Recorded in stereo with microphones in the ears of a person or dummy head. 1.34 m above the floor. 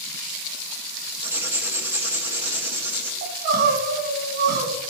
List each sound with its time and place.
1.2 s writing: 10° right (ahead or behind), 1.3 m
3.2 s crying: 50° right (ahead or behind), 2.5 m